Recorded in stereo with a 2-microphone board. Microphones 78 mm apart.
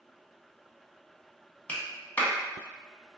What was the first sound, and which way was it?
A clap, 25° left (ahead or behind).